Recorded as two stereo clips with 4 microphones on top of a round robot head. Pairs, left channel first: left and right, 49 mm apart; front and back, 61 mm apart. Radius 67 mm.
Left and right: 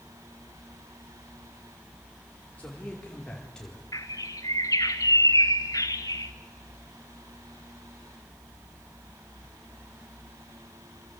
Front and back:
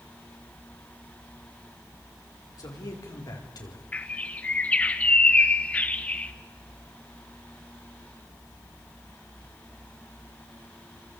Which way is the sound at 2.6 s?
25° left.